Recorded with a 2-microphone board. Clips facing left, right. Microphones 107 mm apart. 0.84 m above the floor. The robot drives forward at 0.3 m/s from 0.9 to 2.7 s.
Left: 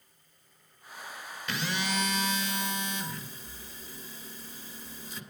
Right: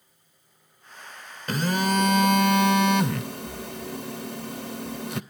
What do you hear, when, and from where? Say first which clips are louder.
1.5 s a phone buzzing: right 9 dB; 45° right (ahead or behind), 0.6 m; by 5.2 s 70° right (ahead or behind), 0.5 m